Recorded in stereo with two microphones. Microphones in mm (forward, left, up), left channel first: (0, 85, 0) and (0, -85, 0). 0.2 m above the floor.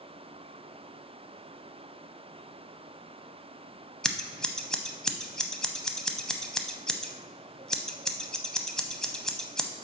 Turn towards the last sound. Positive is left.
turn(degrees=5)  # may be behind; listen again after turning